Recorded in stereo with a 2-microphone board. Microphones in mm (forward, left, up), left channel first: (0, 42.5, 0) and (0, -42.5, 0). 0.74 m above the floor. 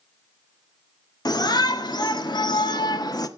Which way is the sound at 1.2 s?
50° left (ahead or behind).